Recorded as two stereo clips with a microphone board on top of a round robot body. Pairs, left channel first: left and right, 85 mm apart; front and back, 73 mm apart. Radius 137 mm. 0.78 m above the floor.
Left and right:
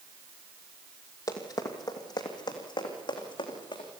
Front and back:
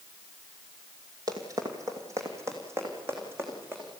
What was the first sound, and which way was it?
Running footsteps, 140° left.